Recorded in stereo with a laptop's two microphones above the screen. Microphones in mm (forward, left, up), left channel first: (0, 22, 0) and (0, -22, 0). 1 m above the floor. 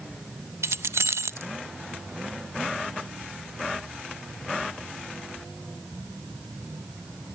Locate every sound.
0.6 s keys jangling: 80° right, 0.6 m